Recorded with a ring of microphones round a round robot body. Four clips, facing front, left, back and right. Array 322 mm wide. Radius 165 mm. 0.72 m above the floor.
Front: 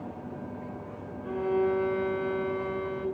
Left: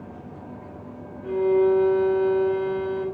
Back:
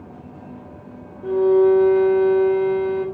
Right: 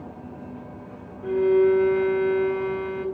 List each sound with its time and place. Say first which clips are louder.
1.2 s a violin: right 1 dB, back 12 dB; 155° right, 2.5 m